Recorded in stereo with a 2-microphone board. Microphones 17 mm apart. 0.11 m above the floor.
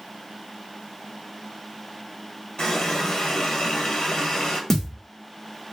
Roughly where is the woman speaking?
No woman speaking in this recording.